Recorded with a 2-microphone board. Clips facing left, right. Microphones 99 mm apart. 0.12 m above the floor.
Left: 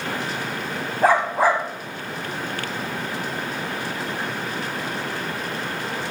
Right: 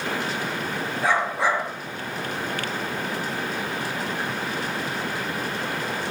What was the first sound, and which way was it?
A dog barking, 45° left (ahead or behind).